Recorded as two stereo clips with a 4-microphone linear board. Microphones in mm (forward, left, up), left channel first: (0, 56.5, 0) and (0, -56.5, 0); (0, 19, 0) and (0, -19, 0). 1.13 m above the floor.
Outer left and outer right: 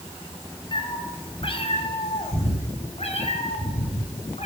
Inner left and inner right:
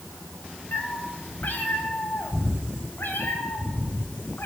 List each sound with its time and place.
0.7 s a cat meowing: 45° left (ahead or behind), 3 m; by 4.5 s 75° left (ahead or behind), 6 m